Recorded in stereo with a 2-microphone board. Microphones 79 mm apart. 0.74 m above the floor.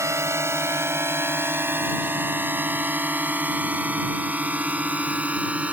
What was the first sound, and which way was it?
A drone, 35° right (ahead or behind).